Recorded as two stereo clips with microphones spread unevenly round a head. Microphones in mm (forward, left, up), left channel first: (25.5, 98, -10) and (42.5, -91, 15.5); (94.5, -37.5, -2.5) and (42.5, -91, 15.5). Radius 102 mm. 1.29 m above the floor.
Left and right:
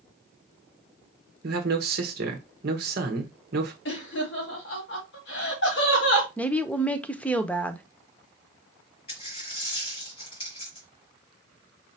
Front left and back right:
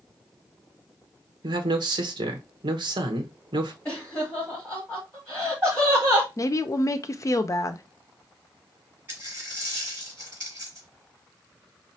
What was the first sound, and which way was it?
A man speaking, 130° right.